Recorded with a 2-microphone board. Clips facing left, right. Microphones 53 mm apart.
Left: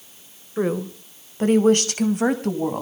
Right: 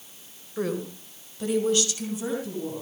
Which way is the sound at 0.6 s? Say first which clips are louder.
Left 6 dB; 25° left (ahead or behind).